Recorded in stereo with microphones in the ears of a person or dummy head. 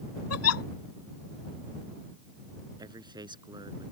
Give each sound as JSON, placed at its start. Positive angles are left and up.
{"t": 0.3, "sound": "a giggle", "side_deg": 85}
{"t": 2.8, "sound": "a man speaking", "side_deg": -20}